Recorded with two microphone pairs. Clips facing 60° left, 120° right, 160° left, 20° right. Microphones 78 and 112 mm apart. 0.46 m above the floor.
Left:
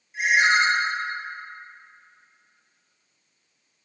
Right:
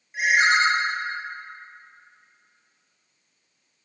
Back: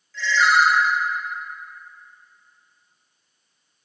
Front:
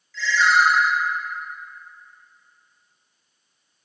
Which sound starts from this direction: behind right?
A ringtone, at 0.1 s.